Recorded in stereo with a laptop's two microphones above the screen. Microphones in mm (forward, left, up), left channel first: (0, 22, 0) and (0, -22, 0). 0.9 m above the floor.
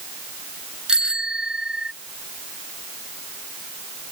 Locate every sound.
0.9 s a bicycle bell: 20° right (ahead or behind)